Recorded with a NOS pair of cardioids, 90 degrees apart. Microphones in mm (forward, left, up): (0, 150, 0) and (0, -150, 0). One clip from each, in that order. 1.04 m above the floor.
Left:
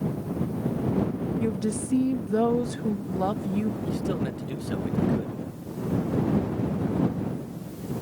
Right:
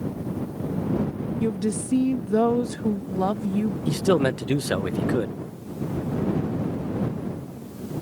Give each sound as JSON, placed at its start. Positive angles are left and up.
{"t": 1.4, "sound": "a woman speaking", "azimuth_deg": -15}
{"t": 3.9, "sound": "a man speaking", "azimuth_deg": -60}